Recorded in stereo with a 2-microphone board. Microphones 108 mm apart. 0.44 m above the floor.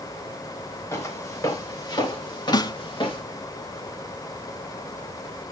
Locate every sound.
0.9 s footsteps: 30° left (ahead or behind), 4.5 m; by 3.2 s 50° left (ahead or behind), 5.5 m
2.5 s a snare drum: 40° left (ahead or behind), 0.7 m